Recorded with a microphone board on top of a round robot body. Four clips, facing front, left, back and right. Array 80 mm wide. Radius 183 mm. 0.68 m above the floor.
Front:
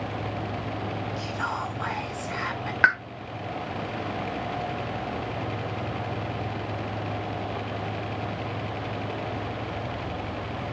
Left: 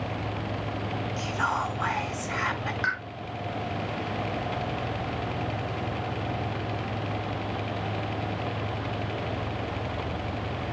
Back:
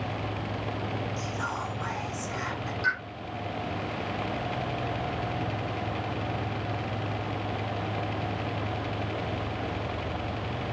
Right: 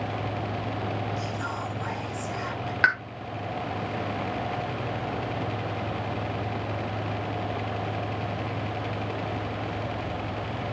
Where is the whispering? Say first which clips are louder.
Left 4 dB, front 2 dB; 70° left, 1.4 m.